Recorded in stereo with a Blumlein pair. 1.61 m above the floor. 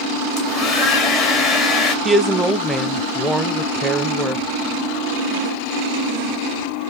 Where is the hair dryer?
25° left, 1.0 m.